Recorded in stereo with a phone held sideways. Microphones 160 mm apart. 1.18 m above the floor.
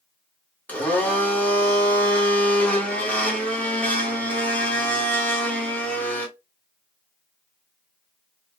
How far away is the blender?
About 1.2 m.